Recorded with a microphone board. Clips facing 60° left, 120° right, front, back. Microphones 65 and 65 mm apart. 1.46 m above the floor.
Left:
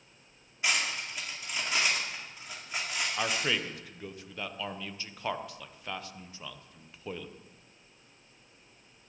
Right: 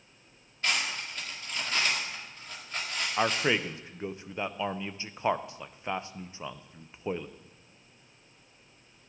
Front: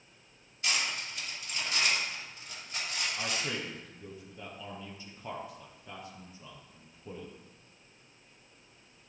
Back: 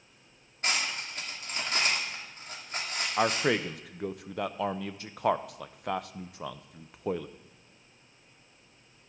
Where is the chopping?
No chopping in this recording.